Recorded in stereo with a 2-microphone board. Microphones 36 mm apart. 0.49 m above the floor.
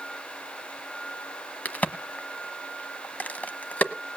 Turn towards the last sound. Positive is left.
turn(degrees=45)  # may be behind; listen again after turning